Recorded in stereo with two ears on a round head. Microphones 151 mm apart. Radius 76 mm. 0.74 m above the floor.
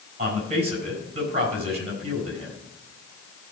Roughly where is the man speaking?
Right.